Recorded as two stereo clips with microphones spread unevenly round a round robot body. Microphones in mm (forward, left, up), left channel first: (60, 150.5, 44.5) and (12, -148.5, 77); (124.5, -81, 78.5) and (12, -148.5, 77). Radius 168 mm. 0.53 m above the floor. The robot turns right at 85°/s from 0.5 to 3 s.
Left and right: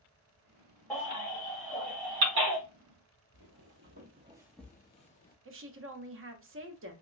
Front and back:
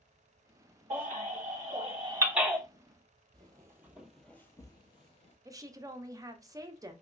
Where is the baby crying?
170° left, 1.7 m; by 2.6 s 45° right, 1.7 m.